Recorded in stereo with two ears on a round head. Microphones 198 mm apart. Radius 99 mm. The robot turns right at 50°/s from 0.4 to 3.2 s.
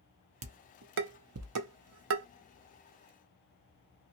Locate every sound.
0.4 s dishes clattering: 30° right (ahead or behind), 0.6 m; by 2.3 s 55° right (ahead or behind), 0.6 m